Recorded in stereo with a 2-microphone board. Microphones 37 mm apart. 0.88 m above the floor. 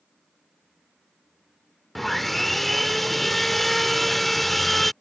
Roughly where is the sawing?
Centre.